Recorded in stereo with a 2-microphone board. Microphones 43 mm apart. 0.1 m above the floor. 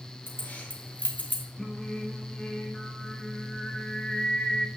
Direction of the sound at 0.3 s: 40° left (ahead or behind).